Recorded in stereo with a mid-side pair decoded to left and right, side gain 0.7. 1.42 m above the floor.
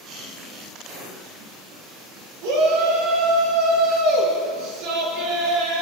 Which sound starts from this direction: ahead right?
A shout, at 2.4 s.